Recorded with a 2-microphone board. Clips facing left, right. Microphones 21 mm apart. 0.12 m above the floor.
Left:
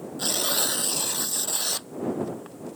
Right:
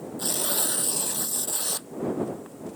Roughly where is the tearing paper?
Left.